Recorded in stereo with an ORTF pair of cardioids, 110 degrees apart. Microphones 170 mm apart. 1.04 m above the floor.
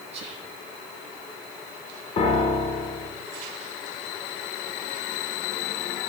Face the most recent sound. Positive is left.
turn(degrees=35)